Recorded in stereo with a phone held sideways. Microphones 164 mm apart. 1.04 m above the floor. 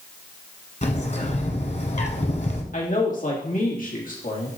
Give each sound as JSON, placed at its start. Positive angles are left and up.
{"t": 0.8, "sound": "a bird", "side_deg": 45, "distance_m": 1.3}
{"t": 2.7, "sound": "a man speaking", "side_deg": 55, "distance_m": 2.0}